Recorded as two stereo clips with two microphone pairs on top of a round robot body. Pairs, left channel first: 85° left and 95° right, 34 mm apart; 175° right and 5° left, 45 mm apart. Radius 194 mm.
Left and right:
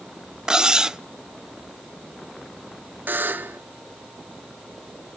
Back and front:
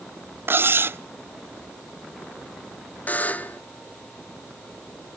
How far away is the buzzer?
About 0.8 m.